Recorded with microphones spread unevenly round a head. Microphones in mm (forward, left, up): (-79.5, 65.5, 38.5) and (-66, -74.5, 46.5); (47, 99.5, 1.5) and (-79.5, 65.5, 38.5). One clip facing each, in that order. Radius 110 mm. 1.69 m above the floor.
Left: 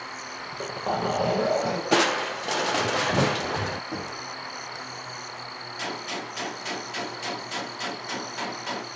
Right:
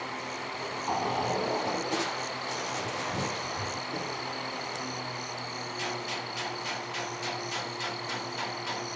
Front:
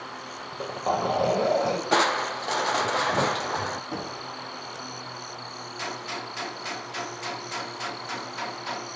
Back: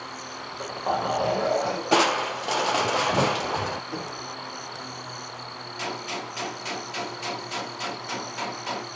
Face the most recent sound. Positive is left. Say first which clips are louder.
# left 4 dB, back 3 dB
turn(degrees=130)